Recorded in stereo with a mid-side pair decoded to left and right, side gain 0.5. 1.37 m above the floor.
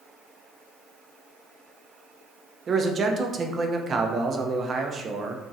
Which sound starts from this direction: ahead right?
A man speaking, at 2.7 s.